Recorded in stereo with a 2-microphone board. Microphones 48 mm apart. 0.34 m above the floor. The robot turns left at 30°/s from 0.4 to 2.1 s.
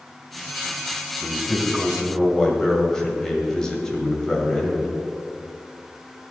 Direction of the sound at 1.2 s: 10° right (ahead or behind).